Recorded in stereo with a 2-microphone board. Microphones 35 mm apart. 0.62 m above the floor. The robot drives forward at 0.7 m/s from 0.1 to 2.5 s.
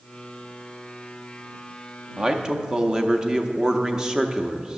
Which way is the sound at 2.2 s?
20° right (ahead or behind).